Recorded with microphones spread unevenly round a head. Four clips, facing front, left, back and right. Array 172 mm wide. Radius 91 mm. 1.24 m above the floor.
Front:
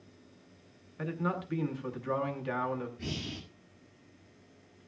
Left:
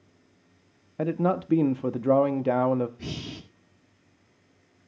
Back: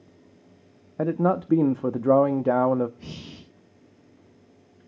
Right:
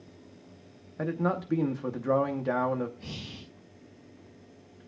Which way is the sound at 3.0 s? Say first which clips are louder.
Left 6 dB, front 2 dB; 70° left.